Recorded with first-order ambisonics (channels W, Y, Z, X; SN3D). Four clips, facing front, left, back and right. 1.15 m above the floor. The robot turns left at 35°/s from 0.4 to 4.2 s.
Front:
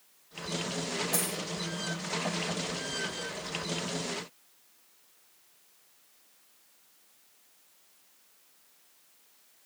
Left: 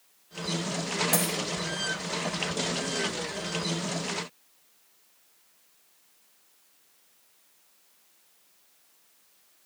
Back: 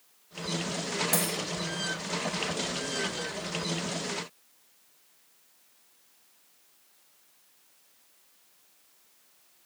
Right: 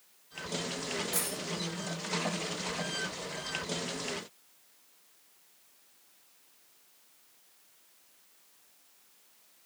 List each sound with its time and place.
1.1 s a dropped coin: 130° left, 5 m; by 1.3 s 125° left, 5 m